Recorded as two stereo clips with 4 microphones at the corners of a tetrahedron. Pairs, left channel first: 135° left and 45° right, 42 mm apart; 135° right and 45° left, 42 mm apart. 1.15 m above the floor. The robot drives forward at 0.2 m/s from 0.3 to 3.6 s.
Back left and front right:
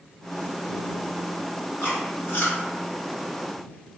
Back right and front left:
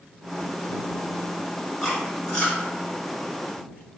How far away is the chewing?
About 1.5 m.